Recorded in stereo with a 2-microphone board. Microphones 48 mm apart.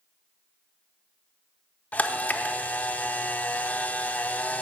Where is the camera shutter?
35° left (ahead or behind), 0.6 m.